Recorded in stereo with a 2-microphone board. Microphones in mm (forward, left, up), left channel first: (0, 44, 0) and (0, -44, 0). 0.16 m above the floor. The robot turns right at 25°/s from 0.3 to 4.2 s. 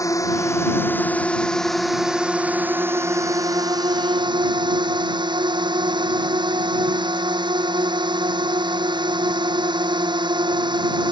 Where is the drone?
145° left; by 11.1 s 120° right.